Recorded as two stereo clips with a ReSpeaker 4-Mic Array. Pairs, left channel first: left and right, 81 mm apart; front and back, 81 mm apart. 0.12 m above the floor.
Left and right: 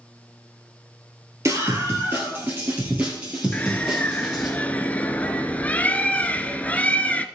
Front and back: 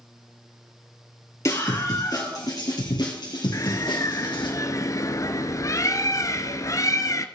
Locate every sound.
1.4 s a scream: 45° right, 2 m; by 4.5 s 10° right, 3 m
3.5 s a bird: 25° left, 0.6 m